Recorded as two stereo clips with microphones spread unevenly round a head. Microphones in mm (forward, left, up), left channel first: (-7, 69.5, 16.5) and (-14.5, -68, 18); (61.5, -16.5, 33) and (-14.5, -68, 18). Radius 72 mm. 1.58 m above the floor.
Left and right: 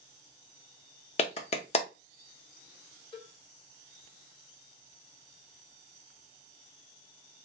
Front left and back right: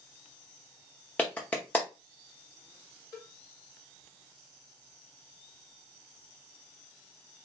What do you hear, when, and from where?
1.2 s a clap: 95° left, 0.7 m
3.1 s a cowbell: 45° left, 0.9 m